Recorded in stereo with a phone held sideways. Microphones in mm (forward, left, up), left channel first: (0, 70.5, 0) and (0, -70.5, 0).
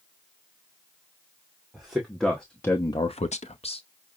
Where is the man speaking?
5° right (ahead or behind), 2.0 m; by 3.8 s 40° left (ahead or behind), 1.0 m.